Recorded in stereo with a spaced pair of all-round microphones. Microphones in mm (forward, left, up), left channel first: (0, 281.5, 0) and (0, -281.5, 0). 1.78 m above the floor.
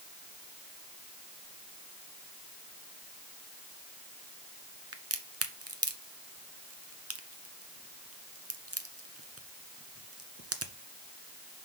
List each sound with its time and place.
4.9 s a crack: 25° right (ahead or behind), 0.8 m